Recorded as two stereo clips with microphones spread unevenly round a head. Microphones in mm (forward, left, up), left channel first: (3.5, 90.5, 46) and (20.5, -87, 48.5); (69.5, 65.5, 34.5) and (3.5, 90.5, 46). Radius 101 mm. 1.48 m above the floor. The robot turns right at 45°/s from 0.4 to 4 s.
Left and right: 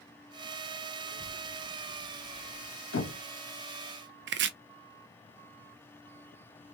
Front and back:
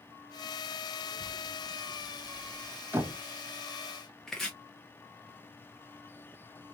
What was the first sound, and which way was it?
A child speaking, 25° right.